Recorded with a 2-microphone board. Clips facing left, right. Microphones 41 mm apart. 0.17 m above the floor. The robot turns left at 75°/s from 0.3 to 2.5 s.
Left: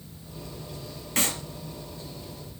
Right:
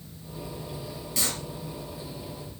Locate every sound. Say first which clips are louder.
1.2 s a clap: left 4 dB; 50° left (ahead or behind), 3.5 m; by 1.4 s 60° left (ahead or behind), 3.5 m